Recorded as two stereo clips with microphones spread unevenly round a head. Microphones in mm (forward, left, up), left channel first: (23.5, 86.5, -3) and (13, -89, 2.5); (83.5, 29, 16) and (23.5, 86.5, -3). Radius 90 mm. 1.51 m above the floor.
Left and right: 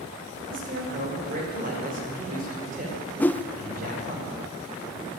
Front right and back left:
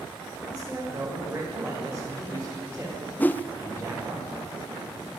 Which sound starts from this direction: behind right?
A man speaking, at 0.5 s.